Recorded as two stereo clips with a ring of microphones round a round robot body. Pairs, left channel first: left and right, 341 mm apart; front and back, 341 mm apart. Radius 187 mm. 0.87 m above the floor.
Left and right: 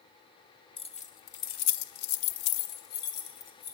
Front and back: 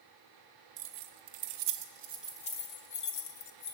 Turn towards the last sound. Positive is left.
turn(degrees=35)